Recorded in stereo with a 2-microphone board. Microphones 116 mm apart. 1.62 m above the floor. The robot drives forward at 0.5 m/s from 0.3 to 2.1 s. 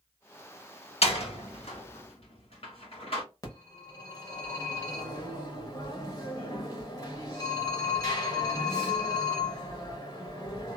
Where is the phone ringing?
30° left (ahead or behind), 1.1 m.